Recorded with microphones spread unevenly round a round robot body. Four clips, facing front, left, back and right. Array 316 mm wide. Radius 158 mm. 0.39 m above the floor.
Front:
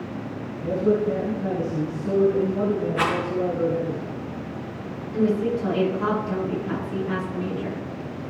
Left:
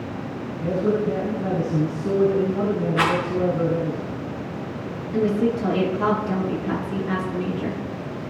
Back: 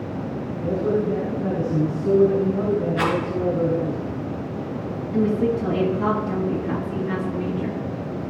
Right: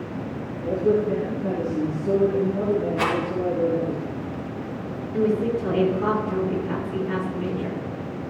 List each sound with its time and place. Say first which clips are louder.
0.6 s a man speaking: right 1 dB, front 1 dB; 120° left, 3.5 m
3.0 s a rattle: left 3 dB, back 2 dB; 100° left, 5 m
5.1 s a woman speaking: left 1 dB, back 1 dB; 125° left, 7 m